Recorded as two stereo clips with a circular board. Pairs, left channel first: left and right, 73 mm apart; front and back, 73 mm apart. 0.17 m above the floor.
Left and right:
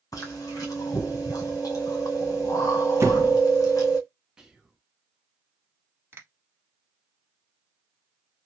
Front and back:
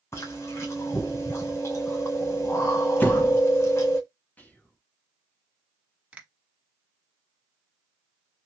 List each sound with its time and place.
0.1 s chewing: 50° left, 2.0 m
3.0 s a door slam: 55° right, 1.6 m
4.4 s whispering: 25° right, 1.2 m
6.1 s a finger snap: 120° right, 1.1 m